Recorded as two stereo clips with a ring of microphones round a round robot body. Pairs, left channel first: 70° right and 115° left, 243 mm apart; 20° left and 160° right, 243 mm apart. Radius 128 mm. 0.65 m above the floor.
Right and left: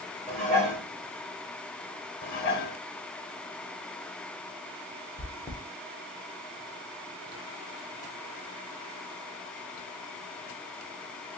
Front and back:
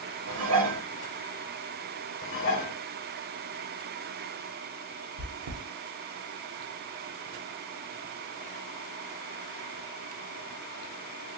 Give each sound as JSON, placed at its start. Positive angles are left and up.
{"t": 0.3, "sound": "dishes clattering", "azimuth_deg": -160, "distance_m": 2.0}
{"t": 2.2, "sound": "dishes clattering", "azimuth_deg": -20, "distance_m": 0.9}
{"t": 5.2, "sound": "chewing", "azimuth_deg": -150, "distance_m": 1.1}